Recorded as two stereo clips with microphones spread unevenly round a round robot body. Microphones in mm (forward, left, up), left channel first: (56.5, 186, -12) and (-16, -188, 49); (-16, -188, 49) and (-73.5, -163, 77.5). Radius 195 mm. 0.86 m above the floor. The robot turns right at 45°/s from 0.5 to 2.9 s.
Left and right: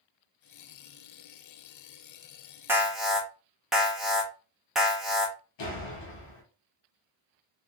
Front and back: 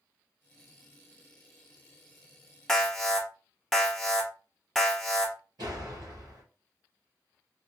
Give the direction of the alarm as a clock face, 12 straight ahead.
12 o'clock.